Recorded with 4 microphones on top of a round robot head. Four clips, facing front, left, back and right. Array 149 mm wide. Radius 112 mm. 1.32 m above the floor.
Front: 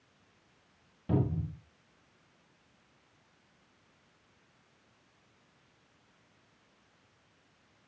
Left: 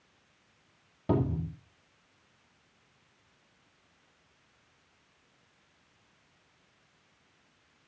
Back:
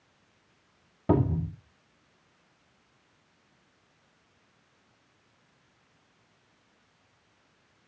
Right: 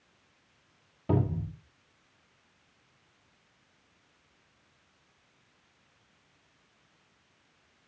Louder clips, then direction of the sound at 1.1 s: Left 1 dB, back 6 dB; 170° left.